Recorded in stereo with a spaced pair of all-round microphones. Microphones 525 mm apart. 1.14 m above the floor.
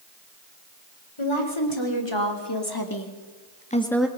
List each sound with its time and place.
1.2 s a woman speaking: 65° left (ahead or behind), 4 m; by 4.1 s 5° right (ahead or behind), 1.5 m